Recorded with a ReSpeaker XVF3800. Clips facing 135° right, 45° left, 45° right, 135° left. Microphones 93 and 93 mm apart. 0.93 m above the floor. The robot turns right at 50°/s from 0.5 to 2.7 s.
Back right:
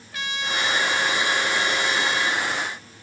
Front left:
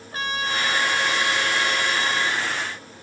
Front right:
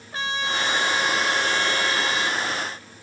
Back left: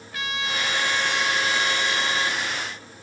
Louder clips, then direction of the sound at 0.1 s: Front left 2 dB, front right 2 dB; 5° left.